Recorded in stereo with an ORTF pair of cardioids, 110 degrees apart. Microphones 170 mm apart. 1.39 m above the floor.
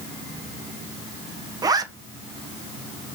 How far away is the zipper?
About 0.9 m.